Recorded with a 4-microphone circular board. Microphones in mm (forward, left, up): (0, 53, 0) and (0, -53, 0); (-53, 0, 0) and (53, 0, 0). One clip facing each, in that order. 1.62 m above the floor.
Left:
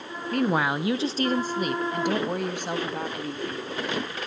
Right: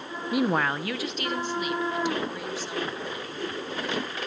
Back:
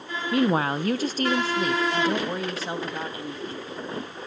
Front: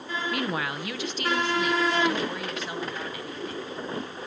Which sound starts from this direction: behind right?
A woman speaking, at 0.3 s.